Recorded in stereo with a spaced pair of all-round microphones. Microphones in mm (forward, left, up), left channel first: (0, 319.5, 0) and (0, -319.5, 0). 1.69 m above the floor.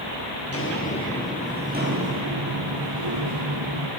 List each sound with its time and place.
0.5 s footsteps: 20° left (ahead or behind), 1.8 m; by 3.9 s 55° right (ahead or behind), 3 m